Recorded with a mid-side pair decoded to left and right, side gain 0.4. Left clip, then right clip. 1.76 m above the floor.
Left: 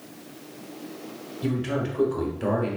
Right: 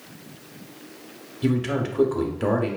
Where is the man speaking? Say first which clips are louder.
Right 3 dB; 45° right, 1.1 m.